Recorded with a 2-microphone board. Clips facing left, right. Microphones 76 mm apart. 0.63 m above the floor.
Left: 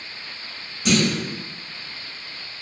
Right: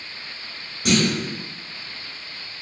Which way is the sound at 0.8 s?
55° right (ahead or behind).